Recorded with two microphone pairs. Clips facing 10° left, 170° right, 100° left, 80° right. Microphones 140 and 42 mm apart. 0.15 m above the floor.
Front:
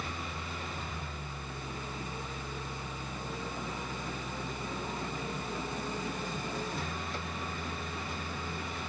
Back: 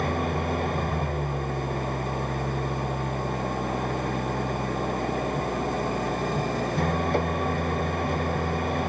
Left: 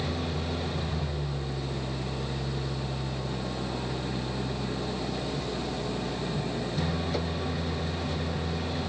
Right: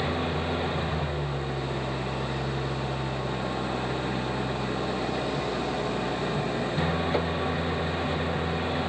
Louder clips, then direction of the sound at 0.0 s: Back 14 dB, right 4 dB; 140° right.